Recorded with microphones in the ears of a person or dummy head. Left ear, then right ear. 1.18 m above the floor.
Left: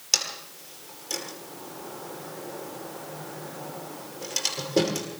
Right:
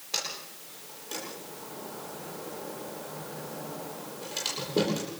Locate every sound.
0.1 s a sliding door: 80° left, 9.5 m